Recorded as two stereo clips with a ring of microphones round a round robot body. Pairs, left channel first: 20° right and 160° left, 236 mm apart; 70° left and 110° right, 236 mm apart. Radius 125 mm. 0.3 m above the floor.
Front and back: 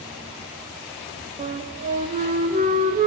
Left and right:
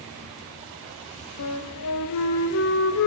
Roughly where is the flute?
Left.